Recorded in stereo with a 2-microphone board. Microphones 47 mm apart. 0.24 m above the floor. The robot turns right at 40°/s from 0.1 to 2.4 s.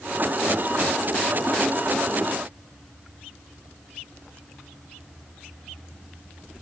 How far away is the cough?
No cough in this recording.